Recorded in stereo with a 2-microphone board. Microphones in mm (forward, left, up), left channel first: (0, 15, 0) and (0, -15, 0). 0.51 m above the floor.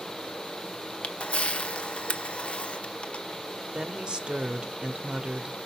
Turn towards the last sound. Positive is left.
turn(degrees=-30)  # may be behind; listen again after turning